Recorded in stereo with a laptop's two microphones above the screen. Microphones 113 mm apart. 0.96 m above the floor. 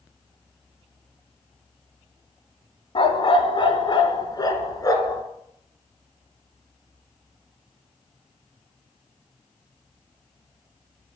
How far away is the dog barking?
About 2 m.